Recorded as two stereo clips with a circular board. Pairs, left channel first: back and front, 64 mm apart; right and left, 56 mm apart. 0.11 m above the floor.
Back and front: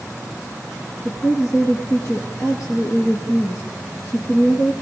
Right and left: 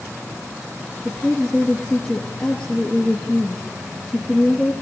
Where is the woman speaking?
155° right, 3 m.